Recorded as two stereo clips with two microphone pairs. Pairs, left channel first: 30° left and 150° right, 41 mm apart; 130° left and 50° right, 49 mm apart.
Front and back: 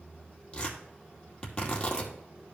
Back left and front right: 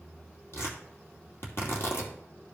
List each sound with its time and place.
0.5 s tearing paper: 95° left, 2.5 m